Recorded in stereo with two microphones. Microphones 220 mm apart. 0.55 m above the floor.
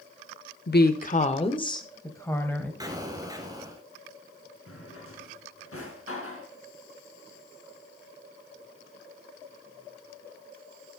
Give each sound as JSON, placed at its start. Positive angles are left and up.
{"t": 0.7, "sound": "a woman speaking", "side_deg": 50, "distance_m": 1.1}
{"t": 2.8, "sound": "an explosion", "side_deg": -15, "distance_m": 2.5}
{"t": 4.7, "sound": "a drawer", "side_deg": 85, "distance_m": 3.5}